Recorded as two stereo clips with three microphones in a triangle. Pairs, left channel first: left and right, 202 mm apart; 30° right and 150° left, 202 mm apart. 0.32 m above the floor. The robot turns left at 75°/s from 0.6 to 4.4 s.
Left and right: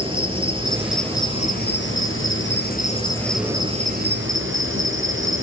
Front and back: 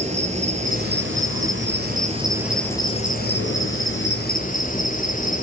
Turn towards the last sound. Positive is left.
turn(degrees=-80)